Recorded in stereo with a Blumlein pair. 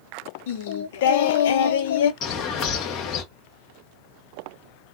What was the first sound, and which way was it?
Singing, 55° left.